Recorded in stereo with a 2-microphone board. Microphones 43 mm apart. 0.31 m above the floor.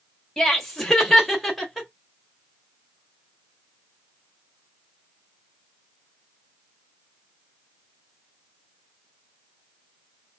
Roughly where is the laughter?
Centre.